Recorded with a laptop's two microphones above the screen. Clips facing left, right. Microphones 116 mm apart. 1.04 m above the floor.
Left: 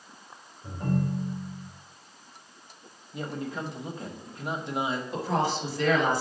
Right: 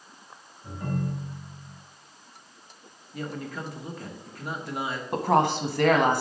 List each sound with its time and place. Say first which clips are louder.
0.6 s a ringtone: left 3 dB; 25° left (ahead or behind), 3 m
3.1 s a man speaking: left 1 dB; 25° left (ahead or behind), 0.8 m
5.1 s a woman speaking: right 7 dB; 70° right (ahead or behind), 1.1 m